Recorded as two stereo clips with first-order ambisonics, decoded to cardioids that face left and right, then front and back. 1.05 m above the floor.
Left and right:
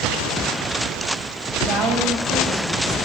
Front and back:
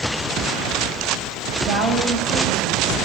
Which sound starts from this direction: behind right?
A woman speaking, at 1.7 s.